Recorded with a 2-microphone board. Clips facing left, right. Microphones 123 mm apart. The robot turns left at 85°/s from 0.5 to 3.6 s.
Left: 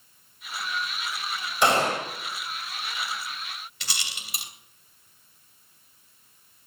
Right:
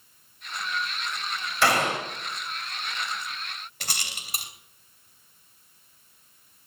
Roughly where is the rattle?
Right.